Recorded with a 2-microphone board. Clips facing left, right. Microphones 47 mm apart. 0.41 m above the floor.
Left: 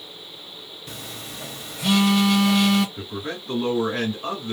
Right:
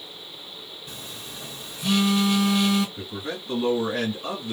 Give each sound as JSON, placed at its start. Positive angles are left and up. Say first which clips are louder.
{"t": 0.9, "sound": "a phone buzzing", "louder": "left 5 dB", "side_deg": 75, "distance_m": 0.7}
{"t": 3.0, "sound": "a man speaking", "louder": "left 1 dB", "side_deg": 35, "distance_m": 1.6}